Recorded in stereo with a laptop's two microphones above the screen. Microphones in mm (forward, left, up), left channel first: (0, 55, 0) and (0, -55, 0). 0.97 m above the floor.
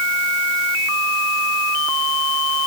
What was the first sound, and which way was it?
Only background noise.